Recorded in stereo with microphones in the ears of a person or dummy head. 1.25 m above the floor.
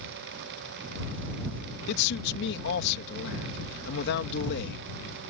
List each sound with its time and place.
1.9 s a man speaking: 60° left (ahead or behind)